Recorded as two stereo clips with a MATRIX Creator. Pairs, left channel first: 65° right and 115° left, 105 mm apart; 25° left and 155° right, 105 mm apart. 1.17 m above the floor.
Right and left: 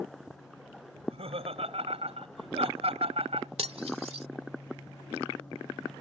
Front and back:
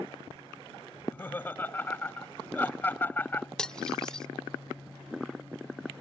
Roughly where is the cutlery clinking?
Left.